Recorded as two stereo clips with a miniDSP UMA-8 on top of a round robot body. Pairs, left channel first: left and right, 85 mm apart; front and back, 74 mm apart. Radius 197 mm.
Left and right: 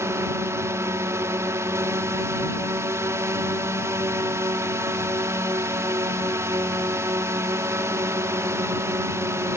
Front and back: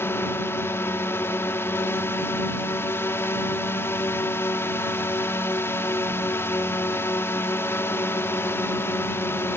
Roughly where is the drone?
Ahead right.